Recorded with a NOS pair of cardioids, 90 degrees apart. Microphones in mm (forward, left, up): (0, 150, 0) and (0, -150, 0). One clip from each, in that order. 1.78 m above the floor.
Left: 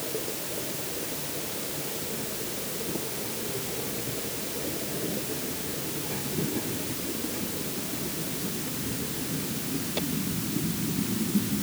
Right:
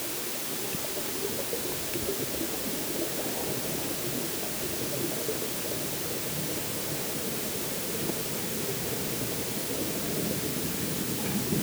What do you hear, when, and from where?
Only background noise.